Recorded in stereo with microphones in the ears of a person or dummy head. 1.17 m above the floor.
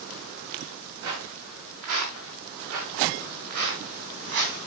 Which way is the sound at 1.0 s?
80° right.